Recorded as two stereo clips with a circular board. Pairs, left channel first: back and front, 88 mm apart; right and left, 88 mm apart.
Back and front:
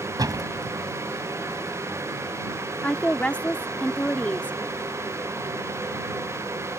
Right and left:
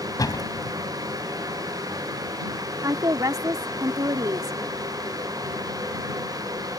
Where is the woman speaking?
110° left.